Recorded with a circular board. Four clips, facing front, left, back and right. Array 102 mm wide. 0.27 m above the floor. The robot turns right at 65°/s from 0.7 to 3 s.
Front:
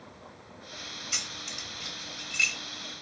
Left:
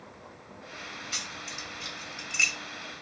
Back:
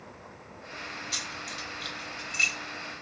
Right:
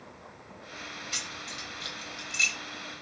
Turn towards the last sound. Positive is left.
turn(degrees=125)